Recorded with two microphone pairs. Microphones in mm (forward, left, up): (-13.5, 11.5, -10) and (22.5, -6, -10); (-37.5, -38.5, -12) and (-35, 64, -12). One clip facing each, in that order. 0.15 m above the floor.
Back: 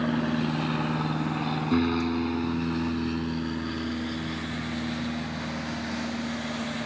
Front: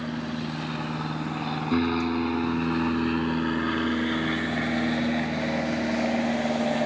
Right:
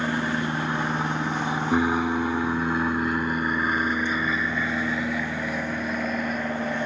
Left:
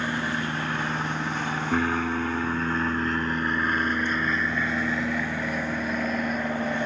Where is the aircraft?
155° right; by 6.9 s straight ahead.